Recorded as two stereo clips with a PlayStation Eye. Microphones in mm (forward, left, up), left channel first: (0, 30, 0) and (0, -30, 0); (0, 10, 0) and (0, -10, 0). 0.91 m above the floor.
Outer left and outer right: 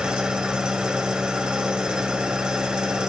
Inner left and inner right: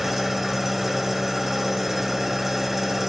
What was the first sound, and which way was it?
An engine running, 15° right (ahead or behind).